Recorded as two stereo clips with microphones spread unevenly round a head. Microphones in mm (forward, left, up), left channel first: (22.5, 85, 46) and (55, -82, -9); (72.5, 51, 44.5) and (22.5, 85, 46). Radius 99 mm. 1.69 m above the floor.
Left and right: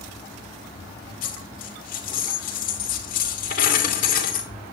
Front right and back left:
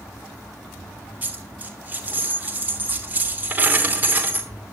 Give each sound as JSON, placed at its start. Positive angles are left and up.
{"t": 1.2, "sound": "a dropped coin", "azimuth_deg": 90, "distance_m": 2.5}